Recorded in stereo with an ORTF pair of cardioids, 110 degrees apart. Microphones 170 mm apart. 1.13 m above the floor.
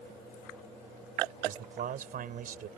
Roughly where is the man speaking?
Ahead right.